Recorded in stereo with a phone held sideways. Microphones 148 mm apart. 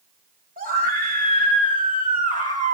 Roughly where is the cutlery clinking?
No cutlery clinking in this recording.